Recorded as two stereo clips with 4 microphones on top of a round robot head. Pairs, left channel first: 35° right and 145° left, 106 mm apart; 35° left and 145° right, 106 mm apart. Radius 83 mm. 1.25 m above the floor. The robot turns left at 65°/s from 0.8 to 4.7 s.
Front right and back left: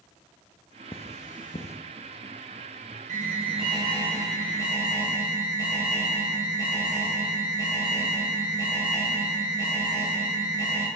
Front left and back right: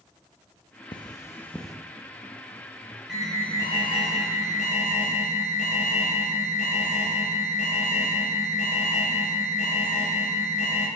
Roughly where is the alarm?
Behind left.